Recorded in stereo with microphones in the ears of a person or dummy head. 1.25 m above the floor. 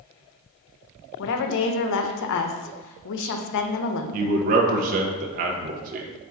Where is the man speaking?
45° right (ahead or behind), 0.6 m.